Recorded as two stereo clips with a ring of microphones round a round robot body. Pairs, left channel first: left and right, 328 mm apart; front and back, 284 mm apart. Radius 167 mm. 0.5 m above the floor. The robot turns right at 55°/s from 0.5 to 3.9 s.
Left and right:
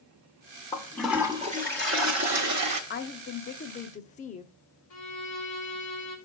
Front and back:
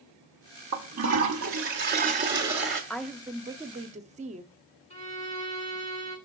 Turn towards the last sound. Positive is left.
turn(degrees=65)